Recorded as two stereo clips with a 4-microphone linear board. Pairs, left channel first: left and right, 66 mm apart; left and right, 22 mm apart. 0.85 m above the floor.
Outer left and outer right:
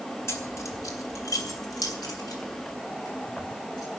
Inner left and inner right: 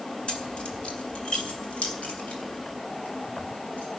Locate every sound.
0.3 s keys jangling: 45° left (ahead or behind), 2 m; by 4.0 s 85° left, 5.5 m